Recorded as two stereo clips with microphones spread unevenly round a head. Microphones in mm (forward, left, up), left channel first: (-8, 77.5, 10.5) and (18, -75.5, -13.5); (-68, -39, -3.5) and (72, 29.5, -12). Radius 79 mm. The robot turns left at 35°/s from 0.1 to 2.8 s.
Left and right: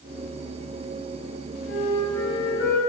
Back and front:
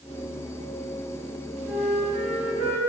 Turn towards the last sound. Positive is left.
turn(degrees=70)